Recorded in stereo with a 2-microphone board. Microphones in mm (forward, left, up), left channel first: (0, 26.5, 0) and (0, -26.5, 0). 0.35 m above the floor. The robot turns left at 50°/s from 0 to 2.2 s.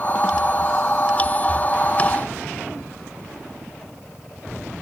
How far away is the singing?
I don't hear singing.